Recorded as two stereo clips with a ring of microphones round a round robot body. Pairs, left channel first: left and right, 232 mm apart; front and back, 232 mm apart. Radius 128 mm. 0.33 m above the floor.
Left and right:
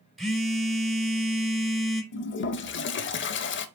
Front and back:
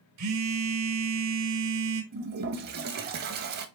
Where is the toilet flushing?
130° left, 0.5 m.